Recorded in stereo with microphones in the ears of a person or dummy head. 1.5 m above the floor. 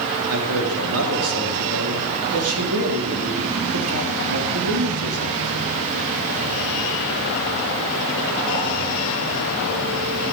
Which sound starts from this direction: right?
A man speaking, at 0.3 s.